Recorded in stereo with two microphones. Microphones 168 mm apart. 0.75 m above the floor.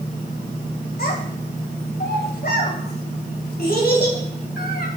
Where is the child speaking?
65° left (ahead or behind), 2.5 m.